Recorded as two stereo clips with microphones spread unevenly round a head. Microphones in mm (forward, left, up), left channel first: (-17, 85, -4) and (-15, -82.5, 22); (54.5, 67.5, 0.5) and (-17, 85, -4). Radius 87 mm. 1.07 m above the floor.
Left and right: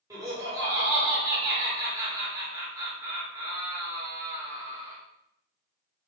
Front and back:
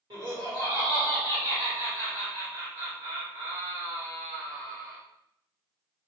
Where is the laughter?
165° right, 1.2 m.